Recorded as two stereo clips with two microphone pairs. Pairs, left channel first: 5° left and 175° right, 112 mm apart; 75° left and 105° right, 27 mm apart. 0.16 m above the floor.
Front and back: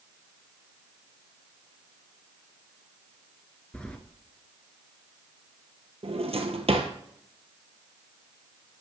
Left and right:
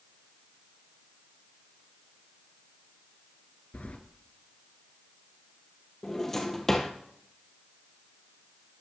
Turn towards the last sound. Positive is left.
turn(degrees=155)